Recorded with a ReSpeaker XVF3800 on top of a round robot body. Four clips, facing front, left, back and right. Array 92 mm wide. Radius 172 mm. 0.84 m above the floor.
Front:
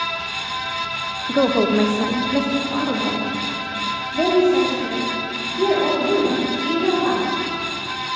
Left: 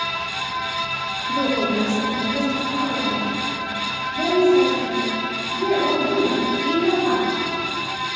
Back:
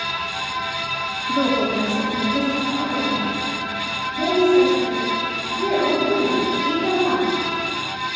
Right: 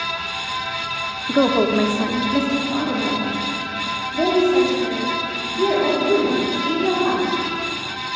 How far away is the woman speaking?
About 0.7 m.